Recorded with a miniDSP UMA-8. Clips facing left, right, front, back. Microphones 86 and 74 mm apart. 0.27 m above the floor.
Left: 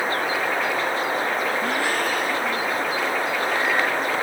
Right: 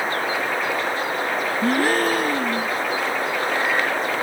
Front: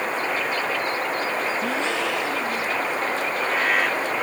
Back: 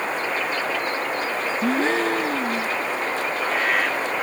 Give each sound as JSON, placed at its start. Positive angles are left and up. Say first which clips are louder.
{"t": 1.6, "sound": "a gasp", "louder": "right 4 dB, back 3 dB", "azimuth_deg": -135}